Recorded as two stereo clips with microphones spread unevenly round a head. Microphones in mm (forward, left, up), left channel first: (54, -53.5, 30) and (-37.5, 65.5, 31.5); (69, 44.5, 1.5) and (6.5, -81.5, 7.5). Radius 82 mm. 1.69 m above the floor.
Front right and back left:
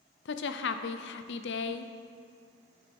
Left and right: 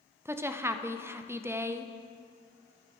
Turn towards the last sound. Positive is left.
turn(degrees=-40)